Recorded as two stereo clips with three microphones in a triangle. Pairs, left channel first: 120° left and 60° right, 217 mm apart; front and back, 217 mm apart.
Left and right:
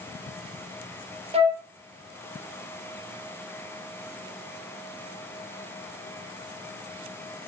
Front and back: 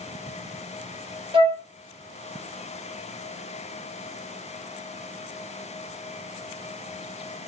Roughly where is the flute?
Behind right.